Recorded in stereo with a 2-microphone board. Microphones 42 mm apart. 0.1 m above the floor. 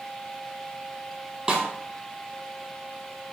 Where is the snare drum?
15° right (ahead or behind), 0.8 m.